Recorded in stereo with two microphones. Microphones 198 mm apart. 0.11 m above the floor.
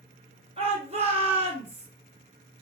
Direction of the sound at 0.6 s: 30° right (ahead or behind).